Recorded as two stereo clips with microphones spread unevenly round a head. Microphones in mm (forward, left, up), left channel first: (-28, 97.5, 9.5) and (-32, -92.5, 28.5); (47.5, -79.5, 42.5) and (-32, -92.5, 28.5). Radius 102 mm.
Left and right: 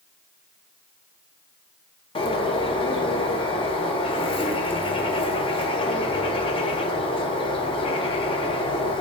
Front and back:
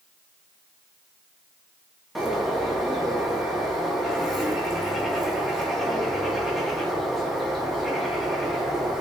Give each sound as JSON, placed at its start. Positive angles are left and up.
{"t": 2.1, "sound": "a bird", "azimuth_deg": 115, "distance_m": 0.6}